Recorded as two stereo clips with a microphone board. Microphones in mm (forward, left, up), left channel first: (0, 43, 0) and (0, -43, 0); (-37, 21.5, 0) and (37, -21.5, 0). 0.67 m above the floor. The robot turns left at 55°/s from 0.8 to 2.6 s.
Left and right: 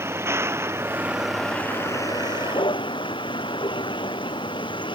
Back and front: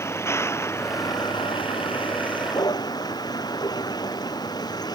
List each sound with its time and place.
0.0 s a vehicle: 150° right; by 5.0 s 110° left